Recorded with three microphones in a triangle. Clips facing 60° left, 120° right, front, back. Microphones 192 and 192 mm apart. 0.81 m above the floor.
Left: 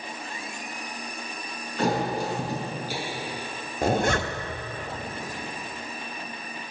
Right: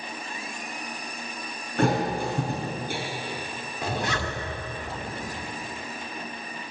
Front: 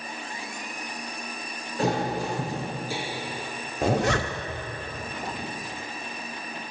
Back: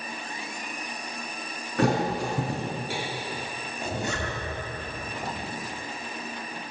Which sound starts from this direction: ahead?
A zipper, at 3.8 s.